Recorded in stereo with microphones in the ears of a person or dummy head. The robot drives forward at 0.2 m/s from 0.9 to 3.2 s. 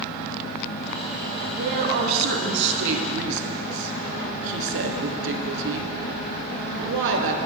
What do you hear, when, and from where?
1.5 s a woman speaking: 55° right (ahead or behind), 1.3 m; by 7.4 s 70° right (ahead or behind), 1.1 m